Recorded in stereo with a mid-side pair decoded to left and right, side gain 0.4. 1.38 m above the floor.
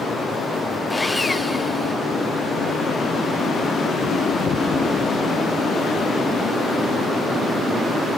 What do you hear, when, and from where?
0.9 s sawing: 15° left, 2 m